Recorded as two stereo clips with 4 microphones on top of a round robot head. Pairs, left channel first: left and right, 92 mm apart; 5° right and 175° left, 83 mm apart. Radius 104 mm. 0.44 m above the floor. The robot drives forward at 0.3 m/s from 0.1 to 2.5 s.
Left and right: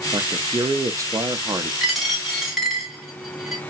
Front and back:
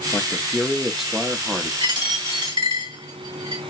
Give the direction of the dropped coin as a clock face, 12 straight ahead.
6 o'clock.